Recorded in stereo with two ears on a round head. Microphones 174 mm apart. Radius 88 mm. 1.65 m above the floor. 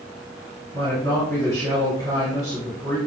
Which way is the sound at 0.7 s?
15° left (ahead or behind).